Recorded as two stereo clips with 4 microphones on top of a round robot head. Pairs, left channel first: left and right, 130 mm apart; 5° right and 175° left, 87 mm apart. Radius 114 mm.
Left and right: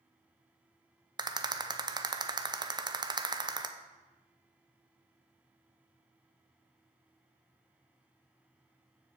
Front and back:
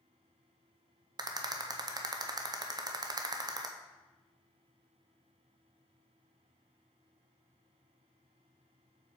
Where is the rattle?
150° right, 0.7 m.